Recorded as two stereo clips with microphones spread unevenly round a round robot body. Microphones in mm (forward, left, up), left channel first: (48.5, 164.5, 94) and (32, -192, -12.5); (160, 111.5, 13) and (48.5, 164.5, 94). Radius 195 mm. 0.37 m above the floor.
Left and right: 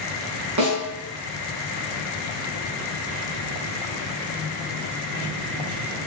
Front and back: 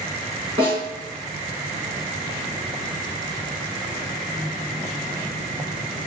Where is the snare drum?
130° right, 5.5 m.